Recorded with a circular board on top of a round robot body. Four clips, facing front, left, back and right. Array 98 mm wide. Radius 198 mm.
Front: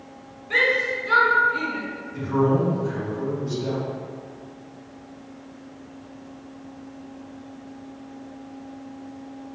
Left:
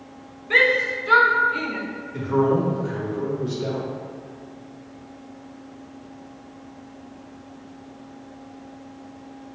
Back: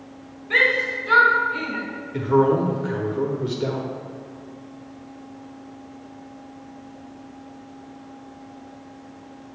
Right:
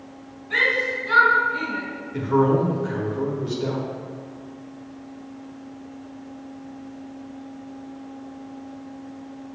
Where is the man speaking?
175° right, 1.6 m.